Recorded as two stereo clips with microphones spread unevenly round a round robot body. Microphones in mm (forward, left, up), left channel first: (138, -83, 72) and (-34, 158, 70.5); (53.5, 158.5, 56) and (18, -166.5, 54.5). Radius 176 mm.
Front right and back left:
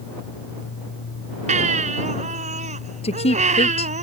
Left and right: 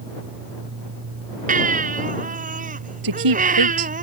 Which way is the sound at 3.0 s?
130° right.